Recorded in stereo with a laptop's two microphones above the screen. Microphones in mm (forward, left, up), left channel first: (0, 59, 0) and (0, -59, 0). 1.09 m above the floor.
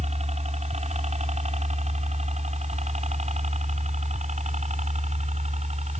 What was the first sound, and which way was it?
A helicopter, 65° right (ahead or behind).